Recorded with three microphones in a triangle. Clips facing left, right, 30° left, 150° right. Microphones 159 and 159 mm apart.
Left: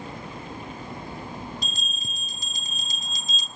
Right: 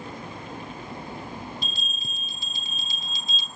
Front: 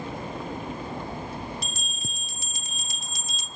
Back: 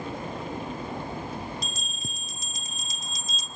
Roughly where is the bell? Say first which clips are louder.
Even, even; ahead left.